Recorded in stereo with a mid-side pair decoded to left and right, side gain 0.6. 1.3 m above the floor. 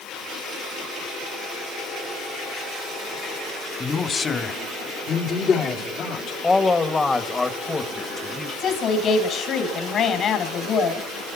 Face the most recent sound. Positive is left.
turn(degrees=45)